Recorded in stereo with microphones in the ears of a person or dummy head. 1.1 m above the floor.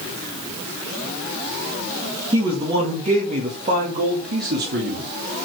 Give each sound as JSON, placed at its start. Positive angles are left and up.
{"t": 2.3, "sound": "a man speaking", "side_deg": -15, "distance_m": 1.6}